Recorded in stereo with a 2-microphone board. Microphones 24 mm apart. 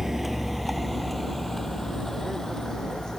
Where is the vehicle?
10° right (ahead or behind); by 3.2 s 25° left (ahead or behind).